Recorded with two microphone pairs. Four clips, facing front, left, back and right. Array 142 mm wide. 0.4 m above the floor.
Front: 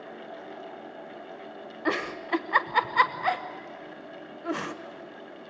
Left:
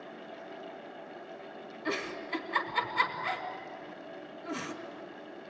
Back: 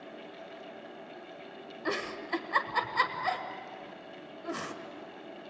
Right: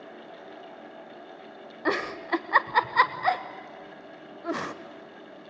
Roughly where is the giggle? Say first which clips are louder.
Right 8 dB, front 5 dB; ahead right.